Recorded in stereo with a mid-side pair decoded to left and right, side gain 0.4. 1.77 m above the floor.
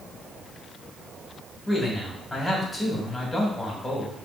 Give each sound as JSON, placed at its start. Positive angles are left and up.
{"t": 1.7, "sound": "a man speaking", "azimuth_deg": 20, "distance_m": 3.5}